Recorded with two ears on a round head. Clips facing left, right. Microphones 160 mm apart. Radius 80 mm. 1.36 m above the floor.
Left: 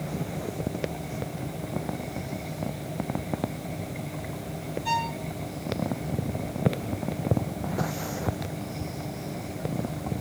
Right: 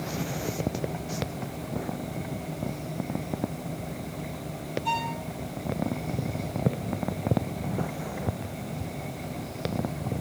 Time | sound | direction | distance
4.8 | a violin | 15° left (ahead or behind) | 3 m